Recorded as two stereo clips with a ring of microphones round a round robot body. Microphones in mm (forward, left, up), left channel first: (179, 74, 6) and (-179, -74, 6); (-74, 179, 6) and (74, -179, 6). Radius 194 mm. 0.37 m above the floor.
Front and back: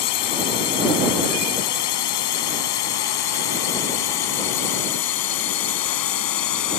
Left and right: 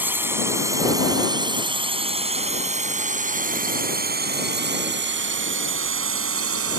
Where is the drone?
15° left; by 6.8 s 15° right.